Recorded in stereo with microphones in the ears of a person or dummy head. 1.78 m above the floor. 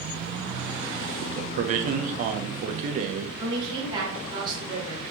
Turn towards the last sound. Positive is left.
turn(degrees=-30)  # may be behind; listen again after turning